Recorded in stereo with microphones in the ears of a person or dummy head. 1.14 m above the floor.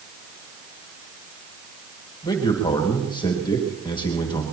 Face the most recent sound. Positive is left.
turn(degrees=25)  # may be behind; listen again after turning